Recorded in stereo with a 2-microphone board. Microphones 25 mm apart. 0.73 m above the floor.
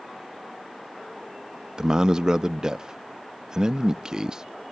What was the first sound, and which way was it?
A man speaking, 25° right (ahead or behind).